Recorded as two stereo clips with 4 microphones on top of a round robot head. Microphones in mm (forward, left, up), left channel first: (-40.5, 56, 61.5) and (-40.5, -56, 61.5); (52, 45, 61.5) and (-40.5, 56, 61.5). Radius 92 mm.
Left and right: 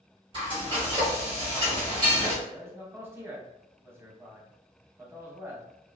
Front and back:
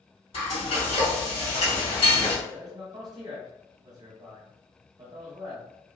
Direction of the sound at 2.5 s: 155° right.